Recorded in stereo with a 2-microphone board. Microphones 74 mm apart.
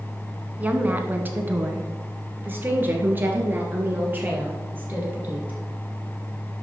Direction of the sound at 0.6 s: 20° right (ahead or behind).